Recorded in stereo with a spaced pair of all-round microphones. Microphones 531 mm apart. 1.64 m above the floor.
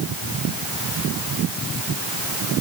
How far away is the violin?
I don't hear a violin.